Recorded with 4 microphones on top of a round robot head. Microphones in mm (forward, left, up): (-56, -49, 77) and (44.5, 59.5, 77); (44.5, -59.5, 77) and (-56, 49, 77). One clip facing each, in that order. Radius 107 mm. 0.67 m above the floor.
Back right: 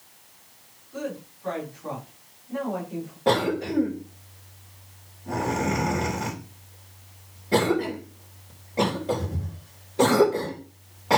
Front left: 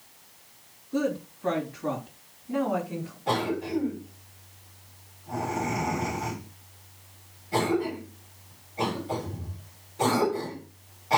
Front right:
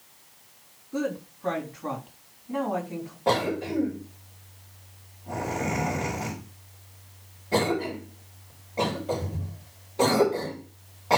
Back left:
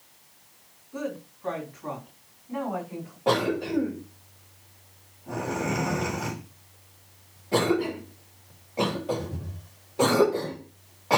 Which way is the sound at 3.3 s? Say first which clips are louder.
Back right 5 dB, back left 1 dB; 145° right.